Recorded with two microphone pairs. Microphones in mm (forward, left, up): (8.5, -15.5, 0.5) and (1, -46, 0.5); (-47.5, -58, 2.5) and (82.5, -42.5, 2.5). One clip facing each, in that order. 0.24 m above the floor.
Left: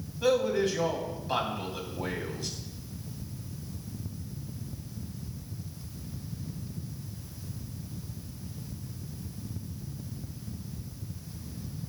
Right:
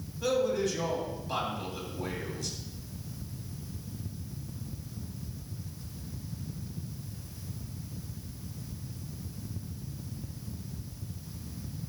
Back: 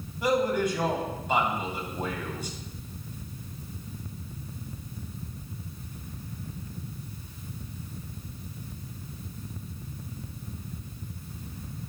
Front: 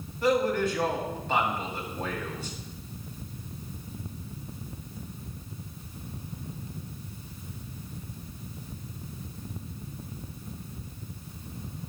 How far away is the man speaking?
About 1.9 m.